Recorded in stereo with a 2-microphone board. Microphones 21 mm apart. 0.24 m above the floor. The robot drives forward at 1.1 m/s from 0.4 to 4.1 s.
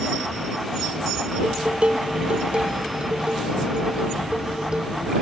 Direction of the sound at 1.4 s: 65° right (ahead or behind).